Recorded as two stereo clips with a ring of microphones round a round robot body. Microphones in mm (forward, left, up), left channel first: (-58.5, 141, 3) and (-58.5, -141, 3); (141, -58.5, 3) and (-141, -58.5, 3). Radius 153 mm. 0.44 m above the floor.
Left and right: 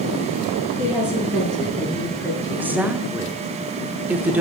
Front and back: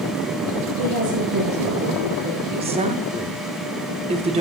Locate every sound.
0.8 s a woman speaking: 175° right, 7.5 m; by 2.8 s 165° left, 6 m
2.5 s a woman speaking: 165° right, 1.3 m